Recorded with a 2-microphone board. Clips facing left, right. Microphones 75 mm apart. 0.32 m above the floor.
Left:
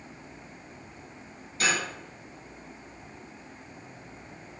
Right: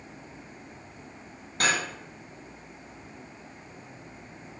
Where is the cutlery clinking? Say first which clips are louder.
Right 1 dB; 55° right (ahead or behind), 1.1 m.